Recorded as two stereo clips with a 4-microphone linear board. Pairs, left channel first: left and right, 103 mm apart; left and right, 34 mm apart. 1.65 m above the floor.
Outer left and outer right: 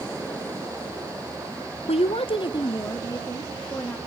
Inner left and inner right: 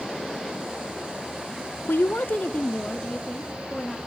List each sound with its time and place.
1.9 s a woman speaking: 75° left (ahead or behind), 0.5 m; by 4.0 s 25° left (ahead or behind), 2 m